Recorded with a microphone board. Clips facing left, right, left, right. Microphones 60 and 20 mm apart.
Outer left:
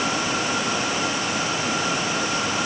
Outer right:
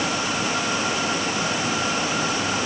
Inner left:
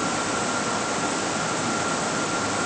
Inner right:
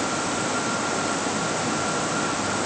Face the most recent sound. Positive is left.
No sound to turn to.